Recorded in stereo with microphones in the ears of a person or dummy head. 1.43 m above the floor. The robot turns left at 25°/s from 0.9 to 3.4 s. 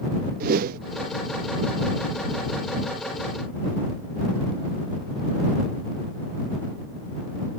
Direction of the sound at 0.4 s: 45° right (ahead or behind).